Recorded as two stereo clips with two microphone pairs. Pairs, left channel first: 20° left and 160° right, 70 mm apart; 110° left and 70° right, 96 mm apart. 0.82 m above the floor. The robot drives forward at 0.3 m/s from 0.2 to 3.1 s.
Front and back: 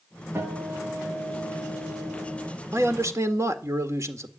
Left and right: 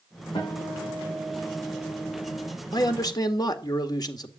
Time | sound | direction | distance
0.3 | a guitar | 145° left | 9.5 m
2.7 | a man speaking | 150° left | 1.8 m